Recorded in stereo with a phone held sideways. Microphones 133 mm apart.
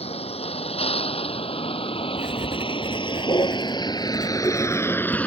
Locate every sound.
0.0 s a vehicle: 50° left (ahead or behind); by 5.3 s 10° left (ahead or behind)
2.2 s writing: 85° left